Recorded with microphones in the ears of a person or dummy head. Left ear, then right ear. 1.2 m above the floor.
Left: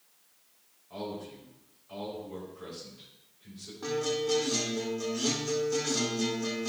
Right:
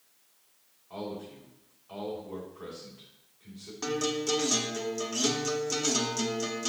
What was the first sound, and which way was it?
A man speaking, 15° right (ahead or behind).